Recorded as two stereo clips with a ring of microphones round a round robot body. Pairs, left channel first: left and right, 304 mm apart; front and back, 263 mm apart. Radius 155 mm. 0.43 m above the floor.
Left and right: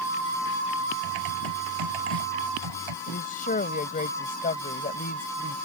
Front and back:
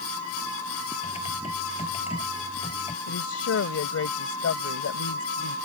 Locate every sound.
1.0 s typing on a keyboard: 70° right
3.1 s a woman speaking: 30° left